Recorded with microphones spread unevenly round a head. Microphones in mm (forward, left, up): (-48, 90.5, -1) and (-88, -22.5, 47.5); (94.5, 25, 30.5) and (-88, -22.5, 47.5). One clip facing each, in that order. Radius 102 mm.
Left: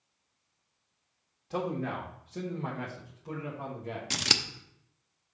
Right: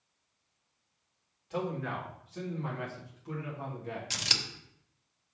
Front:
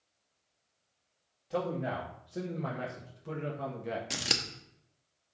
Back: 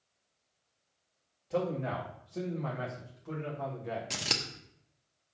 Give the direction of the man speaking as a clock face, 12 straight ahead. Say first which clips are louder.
Left 2 dB, back 1 dB; 9 o'clock.